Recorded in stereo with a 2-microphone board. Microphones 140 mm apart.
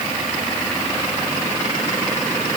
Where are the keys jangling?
I don't hear keys jangling.